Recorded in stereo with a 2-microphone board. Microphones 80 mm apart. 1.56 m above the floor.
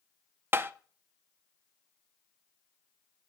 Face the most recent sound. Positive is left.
turn(degrees=-30)  # may be behind; listen again after turning